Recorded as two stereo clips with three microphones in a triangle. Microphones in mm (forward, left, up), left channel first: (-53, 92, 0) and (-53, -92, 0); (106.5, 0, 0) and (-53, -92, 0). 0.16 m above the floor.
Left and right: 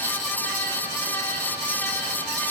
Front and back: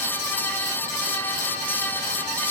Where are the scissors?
I don't hear scissors.